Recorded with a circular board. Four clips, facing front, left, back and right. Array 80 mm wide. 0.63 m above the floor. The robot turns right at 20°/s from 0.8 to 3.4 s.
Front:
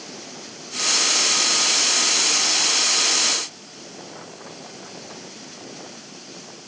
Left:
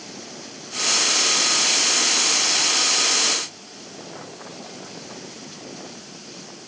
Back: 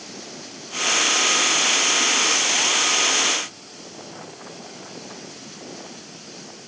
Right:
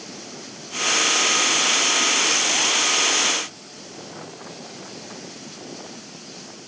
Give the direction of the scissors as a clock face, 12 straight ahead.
I don't hear scissors.